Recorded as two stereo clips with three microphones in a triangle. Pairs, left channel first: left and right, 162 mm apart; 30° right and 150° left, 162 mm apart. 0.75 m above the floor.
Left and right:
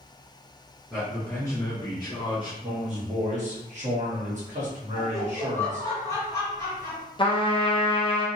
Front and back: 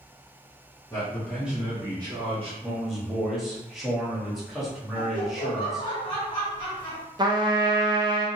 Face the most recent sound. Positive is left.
turn(degrees=115)